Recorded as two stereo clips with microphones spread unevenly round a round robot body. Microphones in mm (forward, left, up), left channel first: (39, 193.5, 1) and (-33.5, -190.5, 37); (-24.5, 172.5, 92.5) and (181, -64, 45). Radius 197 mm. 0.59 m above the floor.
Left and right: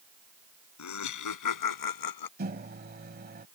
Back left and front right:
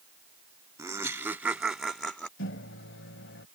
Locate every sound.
0.8 s laughter: 30° left; by 2.3 s 45° left
2.4 s a microwave: 170° right